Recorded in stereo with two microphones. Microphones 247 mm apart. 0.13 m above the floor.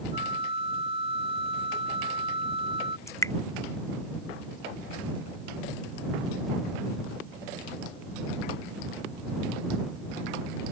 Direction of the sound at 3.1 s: 10° left (ahead or behind).